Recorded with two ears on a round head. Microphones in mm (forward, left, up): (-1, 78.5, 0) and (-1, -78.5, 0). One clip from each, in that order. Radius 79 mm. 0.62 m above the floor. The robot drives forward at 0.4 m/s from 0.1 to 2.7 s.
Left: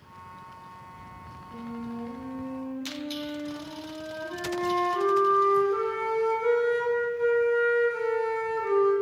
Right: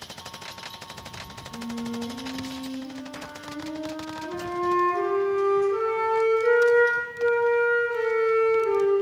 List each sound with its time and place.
1.5 s a flute: 75° left (ahead or behind), 1.4 m; by 8.9 s 70° left (ahead or behind), 1.4 m